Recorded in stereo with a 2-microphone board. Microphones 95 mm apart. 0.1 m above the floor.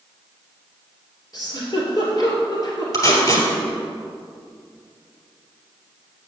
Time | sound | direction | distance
1.3 | a giggle | 40° left (ahead or behind) | 2 m
2.9 | tape being pulled | 40° left (ahead or behind) | 2 m